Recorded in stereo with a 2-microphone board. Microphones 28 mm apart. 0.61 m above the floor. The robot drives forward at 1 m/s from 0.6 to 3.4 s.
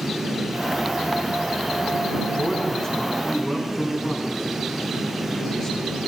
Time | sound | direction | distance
2.3 | a man speaking | 25° left (ahead or behind) | 4 m